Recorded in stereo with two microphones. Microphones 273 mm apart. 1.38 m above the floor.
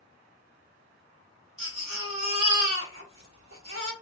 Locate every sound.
1.6 s a baby crying: 55° right (ahead or behind), 1.1 m